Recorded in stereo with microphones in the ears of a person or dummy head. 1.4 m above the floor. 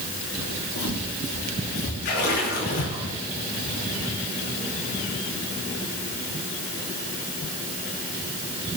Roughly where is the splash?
Left.